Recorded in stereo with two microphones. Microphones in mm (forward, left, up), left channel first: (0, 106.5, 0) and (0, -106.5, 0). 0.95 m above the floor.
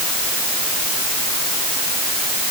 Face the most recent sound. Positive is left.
No sound to turn to.